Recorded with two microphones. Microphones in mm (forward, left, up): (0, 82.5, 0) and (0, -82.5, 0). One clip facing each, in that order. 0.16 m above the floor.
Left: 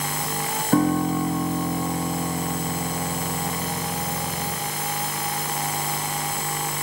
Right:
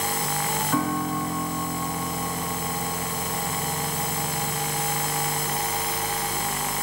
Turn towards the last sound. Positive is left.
turn(degrees=40)  # may be behind; listen again after turning